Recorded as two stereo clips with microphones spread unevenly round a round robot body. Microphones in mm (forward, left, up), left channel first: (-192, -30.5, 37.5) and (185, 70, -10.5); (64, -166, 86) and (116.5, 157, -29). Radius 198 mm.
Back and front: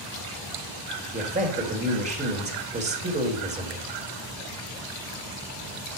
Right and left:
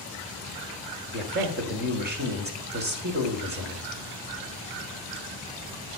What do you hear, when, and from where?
1.1 s a man speaking: 75° left, 1.6 m